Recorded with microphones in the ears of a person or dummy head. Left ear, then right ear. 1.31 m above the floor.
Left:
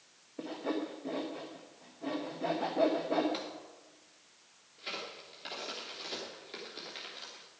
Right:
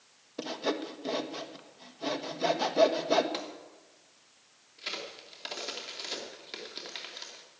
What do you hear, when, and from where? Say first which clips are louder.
0.4 s sawing: right 4 dB; 85° right, 1.2 m
3.3 s a gunshot: right 2 dB; 15° right (ahead or behind), 1.8 m
4.8 s a crack: right 3 dB; 20° right (ahead or behind), 3 m